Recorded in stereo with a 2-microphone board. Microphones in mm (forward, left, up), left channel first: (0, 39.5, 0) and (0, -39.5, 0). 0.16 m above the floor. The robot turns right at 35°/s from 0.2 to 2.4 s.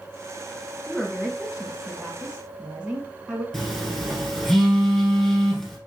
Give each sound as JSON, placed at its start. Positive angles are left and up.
{"t": 0.9, "sound": "a woman speaking", "azimuth_deg": 160, "distance_m": 1.2}
{"t": 3.5, "sound": "a phone buzzing", "side_deg": 0, "distance_m": 2.0}